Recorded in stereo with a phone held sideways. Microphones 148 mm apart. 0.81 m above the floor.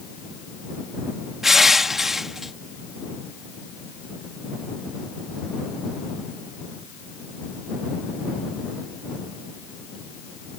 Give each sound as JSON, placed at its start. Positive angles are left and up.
{"t": 1.4, "sound": "crushing", "side_deg": 0}